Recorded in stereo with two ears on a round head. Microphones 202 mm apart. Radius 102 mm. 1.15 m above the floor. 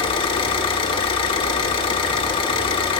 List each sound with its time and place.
0.0 s an engine running: 20° left (ahead or behind), 1.3 m